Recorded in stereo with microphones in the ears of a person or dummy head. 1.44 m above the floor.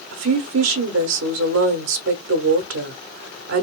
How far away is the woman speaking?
About 1.0 m.